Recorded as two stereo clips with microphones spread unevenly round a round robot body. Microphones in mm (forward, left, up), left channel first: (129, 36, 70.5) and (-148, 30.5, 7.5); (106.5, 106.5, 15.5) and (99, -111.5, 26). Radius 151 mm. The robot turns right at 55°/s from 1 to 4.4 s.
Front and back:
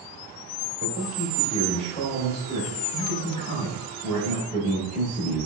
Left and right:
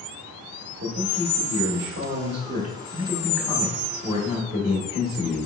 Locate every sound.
0.8 s a man speaking: 135° right, 1.3 m; by 5.5 s 55° left, 1.3 m